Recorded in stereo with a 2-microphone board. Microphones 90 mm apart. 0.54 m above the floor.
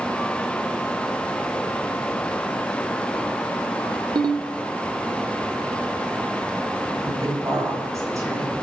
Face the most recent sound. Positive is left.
turn(degrees=-35)  # may be behind; listen again after turning